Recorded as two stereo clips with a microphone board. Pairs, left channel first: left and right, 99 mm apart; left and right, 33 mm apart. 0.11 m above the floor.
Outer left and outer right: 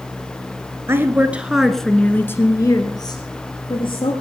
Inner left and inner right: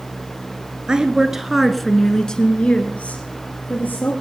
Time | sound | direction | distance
0.9 | a woman speaking | 25° right (ahead or behind) | 1.9 m